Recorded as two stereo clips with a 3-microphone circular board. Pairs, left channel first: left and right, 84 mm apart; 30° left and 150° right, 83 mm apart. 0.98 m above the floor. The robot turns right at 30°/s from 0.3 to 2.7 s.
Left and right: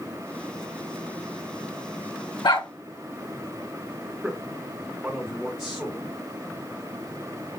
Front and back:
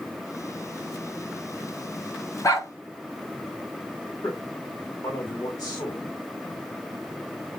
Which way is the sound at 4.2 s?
10° right.